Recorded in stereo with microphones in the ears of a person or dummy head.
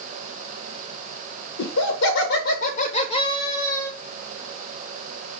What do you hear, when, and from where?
1.6 s laughter: 85° left, 1.0 m; by 3.9 s centre (ahead or behind), 1.0 m